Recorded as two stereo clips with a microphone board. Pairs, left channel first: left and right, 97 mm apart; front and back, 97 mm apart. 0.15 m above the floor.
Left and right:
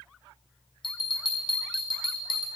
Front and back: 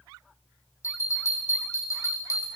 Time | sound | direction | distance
0.8 | a bell | 60° left | 1.7 m